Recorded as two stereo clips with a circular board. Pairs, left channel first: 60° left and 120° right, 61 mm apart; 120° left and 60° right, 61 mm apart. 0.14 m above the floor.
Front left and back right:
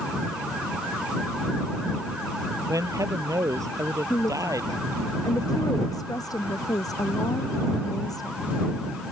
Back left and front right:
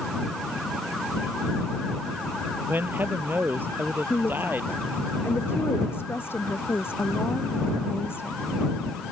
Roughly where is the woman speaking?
Left.